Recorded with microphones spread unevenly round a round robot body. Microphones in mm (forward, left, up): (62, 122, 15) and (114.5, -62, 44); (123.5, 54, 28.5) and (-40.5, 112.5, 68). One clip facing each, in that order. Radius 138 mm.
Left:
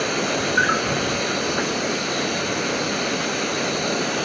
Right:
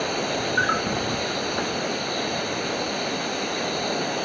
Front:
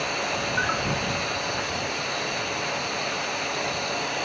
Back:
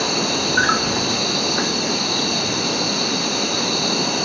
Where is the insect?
Straight behind.